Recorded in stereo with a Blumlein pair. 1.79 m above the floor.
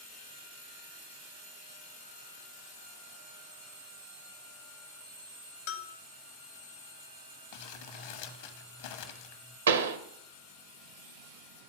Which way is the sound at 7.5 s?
50° left.